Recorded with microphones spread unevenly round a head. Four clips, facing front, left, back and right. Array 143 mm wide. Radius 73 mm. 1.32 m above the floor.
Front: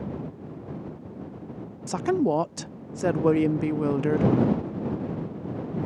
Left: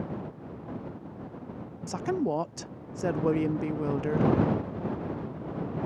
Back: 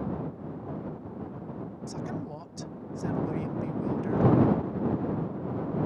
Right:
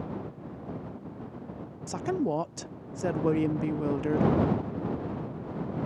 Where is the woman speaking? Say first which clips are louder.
Even, front 15 dB; straight ahead.